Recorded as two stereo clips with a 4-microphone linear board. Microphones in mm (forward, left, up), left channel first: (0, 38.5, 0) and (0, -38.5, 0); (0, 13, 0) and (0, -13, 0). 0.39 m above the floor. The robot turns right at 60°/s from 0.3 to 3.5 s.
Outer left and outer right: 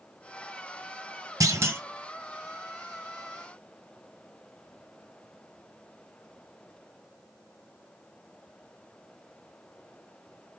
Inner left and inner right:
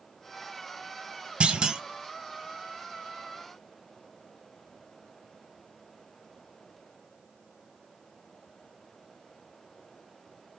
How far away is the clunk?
About 1.4 m.